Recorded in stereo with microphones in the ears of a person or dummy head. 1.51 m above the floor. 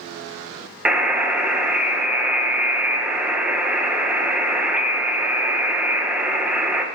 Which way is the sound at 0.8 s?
5° right (ahead or behind).